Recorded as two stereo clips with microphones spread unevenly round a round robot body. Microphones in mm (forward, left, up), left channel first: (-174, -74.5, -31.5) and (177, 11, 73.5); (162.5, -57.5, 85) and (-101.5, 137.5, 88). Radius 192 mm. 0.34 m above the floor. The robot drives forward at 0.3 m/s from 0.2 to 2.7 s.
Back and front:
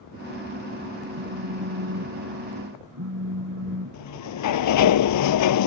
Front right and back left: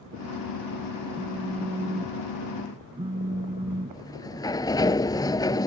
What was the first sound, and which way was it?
A phone buzzing, 60° left.